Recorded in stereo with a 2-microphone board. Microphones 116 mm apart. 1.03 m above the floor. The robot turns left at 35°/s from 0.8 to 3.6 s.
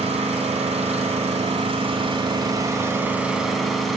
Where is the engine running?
85° right, 1.9 m; by 4.0 s straight behind, 1.9 m.